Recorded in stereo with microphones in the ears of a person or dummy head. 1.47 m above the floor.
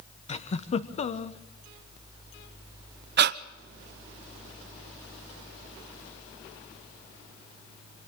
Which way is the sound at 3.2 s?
55° right (ahead or behind).